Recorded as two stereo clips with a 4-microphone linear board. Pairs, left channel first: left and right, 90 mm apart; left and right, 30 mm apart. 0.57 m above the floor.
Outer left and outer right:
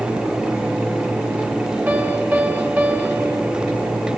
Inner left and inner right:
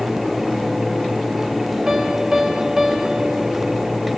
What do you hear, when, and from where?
1.9 s a piano: 20° right (ahead or behind), 1.2 m